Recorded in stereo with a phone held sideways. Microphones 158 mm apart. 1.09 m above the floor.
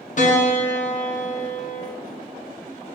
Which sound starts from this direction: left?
A piano, at 0.2 s.